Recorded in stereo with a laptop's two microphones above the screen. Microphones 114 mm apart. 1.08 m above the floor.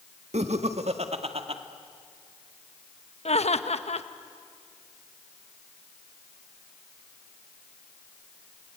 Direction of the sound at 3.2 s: 70° left (ahead or behind).